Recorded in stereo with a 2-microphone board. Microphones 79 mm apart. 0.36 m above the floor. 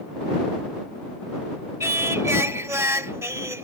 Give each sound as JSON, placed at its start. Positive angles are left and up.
{"t": 1.8, "sound": "singing", "side_deg": -40}